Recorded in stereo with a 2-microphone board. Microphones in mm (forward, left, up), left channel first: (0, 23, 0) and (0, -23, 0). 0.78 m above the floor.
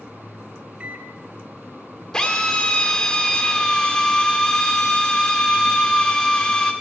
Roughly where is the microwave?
Right.